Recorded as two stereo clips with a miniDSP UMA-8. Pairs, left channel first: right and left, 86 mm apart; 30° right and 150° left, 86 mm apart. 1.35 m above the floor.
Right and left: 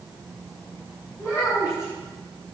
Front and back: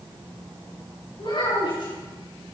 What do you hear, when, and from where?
1.2 s a child speaking: 30° right, 6.5 m